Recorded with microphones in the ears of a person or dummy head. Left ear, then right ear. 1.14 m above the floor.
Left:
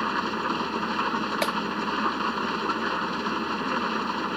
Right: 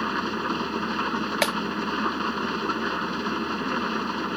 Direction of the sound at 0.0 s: 15° left (ahead or behind).